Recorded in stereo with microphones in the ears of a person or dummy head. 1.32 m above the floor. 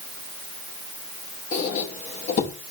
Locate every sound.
1.5 s a squeak: 45° left (ahead or behind), 0.8 m